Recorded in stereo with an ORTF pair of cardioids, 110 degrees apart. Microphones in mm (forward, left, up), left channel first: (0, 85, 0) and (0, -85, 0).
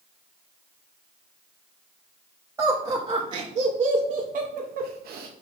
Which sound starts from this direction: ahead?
Laughter, at 2.6 s.